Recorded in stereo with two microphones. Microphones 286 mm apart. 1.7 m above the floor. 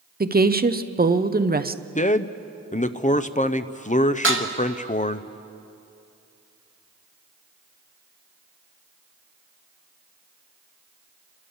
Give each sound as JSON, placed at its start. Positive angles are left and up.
{"t": 0.2, "sound": "a woman speaking", "side_deg": -30, "distance_m": 0.7}
{"t": 1.9, "sound": "a man speaking", "side_deg": 25, "distance_m": 0.6}
{"t": 4.2, "sound": "dishes clattering", "side_deg": -45, "distance_m": 1.3}